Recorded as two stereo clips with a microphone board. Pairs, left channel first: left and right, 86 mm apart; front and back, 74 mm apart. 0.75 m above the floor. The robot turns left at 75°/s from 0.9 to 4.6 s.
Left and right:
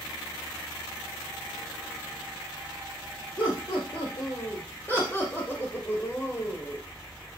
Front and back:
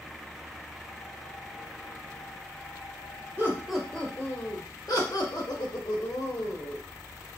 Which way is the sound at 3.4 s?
120° left.